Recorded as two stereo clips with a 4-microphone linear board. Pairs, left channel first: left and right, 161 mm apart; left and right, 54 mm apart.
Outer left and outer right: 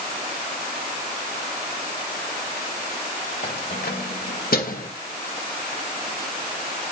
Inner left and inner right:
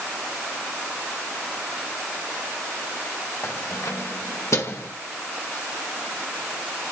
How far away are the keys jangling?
About 2.5 m.